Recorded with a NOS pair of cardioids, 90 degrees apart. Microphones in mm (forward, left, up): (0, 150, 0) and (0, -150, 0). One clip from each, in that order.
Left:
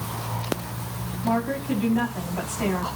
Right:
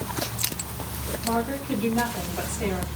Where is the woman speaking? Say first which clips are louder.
Left 2 dB; 45° left, 7.5 m.